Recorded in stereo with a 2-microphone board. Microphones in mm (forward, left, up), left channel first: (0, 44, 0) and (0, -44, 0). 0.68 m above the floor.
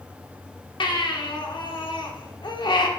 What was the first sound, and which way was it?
A baby crying, 60° left (ahead or behind).